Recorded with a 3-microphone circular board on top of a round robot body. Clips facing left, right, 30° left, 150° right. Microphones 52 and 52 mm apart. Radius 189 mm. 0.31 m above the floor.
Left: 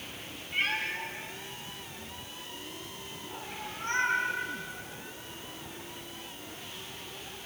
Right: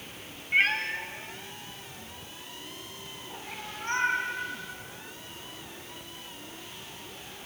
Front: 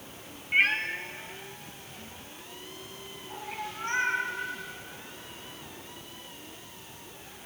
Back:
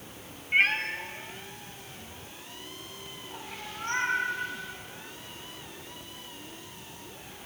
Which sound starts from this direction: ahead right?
A cat meowing, at 0.5 s.